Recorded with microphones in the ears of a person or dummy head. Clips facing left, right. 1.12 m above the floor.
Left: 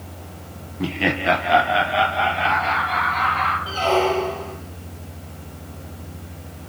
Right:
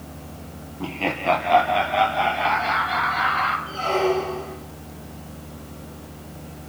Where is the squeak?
80° left, 5 m.